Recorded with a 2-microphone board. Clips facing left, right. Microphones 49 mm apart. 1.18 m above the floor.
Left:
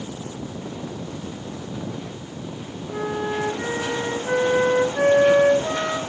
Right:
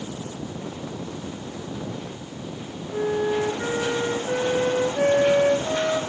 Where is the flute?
70° left (ahead or behind), 8 m.